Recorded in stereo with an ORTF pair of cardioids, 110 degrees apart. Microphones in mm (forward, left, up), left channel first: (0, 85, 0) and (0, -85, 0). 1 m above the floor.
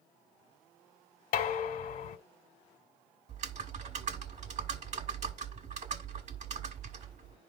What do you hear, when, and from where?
1.3 s dishes clattering: 65° left, 1.9 m
3.3 s typing on a keyboard: 50° right, 1.5 m